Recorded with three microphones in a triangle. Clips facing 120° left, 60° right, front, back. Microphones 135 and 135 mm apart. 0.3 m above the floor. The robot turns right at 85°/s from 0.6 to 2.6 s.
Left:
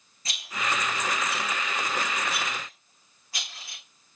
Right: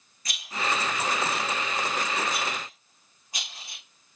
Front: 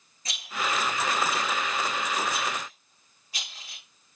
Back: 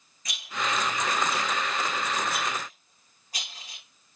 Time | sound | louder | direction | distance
0.2 | a rattle | right 1 dB, even | 60° left | 9 m